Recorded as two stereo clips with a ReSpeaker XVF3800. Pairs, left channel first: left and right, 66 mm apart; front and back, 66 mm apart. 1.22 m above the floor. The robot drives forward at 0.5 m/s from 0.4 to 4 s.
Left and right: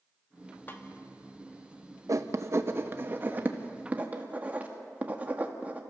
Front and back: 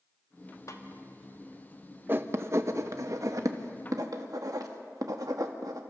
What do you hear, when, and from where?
0.7 s a snare drum: 30° left, 1.5 m
2.1 s writing: 125° right, 0.8 m; by 5.8 s 155° right, 1.5 m